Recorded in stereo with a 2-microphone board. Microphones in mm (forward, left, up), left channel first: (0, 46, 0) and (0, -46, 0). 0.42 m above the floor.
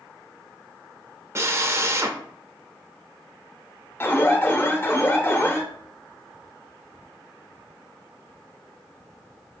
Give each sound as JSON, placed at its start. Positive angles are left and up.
{"t": 1.4, "sound": "a drill", "side_deg": -30, "distance_m": 0.6}
{"t": 4.0, "sound": "an alarm", "side_deg": 25, "distance_m": 0.7}